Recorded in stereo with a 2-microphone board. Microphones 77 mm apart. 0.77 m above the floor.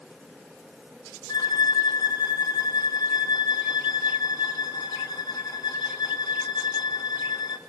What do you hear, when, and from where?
1.3 s a violin: 60° left (ahead or behind), 1.0 m